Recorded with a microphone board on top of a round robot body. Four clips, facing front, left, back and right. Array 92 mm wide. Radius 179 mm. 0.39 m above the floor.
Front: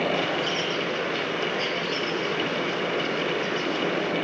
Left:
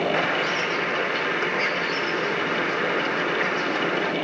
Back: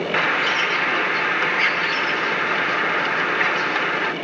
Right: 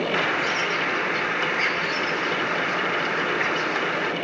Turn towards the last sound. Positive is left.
turn(degrees=-175)